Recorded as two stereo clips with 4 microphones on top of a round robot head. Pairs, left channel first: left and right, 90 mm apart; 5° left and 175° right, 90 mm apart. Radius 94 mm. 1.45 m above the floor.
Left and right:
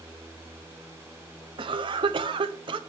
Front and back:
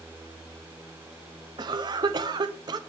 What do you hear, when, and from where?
1.6 s a cough: 125° right, 0.6 m